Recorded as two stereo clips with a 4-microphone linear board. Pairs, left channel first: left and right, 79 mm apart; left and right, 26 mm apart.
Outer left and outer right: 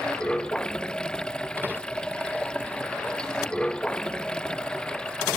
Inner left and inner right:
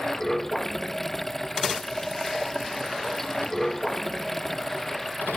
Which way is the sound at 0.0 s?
10° left (ahead or behind).